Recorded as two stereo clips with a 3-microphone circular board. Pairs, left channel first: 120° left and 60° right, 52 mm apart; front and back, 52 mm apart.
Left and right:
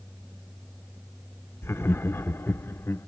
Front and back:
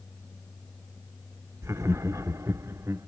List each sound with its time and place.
1.6 s laughter: 155° left, 0.7 m